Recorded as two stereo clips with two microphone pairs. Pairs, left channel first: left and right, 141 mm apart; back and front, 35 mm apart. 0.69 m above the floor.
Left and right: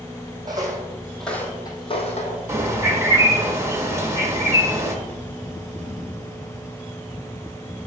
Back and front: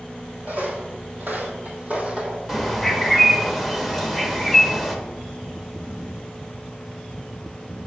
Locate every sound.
0.5 s footsteps: 35° right, 1.8 m; by 2.4 s 60° left, 1.8 m
2.5 s a bird: 65° right, 1.1 m